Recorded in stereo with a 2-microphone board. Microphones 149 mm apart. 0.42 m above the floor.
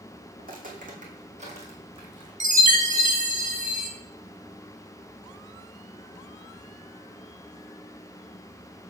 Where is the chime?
55° right (ahead or behind), 0.9 m.